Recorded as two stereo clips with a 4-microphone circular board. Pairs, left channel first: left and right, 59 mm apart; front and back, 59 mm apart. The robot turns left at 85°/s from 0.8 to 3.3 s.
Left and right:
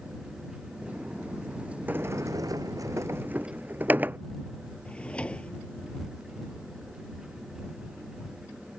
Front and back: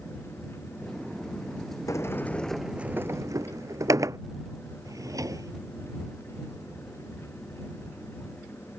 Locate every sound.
1.9 s a sliding door: 30° right; by 4.2 s 150° right
4.8 s a drawer: 160° left